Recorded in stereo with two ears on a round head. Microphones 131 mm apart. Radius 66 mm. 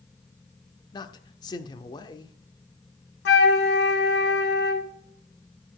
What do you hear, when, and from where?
0.9 s a man speaking: 25° left (ahead or behind), 0.9 m
3.2 s a flute: 85° left, 1.5 m